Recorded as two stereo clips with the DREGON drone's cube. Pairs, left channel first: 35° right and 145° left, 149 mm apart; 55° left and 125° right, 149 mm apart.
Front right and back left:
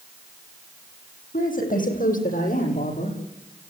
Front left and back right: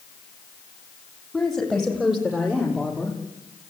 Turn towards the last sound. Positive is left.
turn(degrees=-45)